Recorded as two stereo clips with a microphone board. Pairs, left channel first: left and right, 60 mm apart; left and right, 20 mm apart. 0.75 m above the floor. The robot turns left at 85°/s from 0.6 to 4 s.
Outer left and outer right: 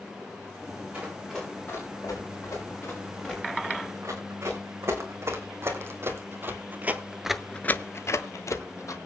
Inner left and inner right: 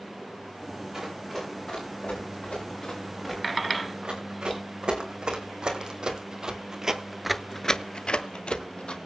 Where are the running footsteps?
30° right (ahead or behind), 9 m; by 9.0 s 55° left (ahead or behind), 2 m.